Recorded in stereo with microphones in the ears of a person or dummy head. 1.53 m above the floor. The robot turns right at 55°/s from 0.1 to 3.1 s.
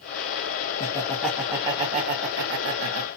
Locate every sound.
0.8 s laughter: 25° left (ahead or behind), 0.8 m; by 3.1 s 70° right (ahead or behind), 0.8 m